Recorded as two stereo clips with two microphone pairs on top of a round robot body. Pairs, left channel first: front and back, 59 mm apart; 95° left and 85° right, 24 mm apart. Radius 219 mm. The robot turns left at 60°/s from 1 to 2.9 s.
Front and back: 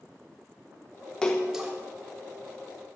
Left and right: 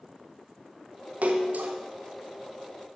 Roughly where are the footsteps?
No footsteps in this recording.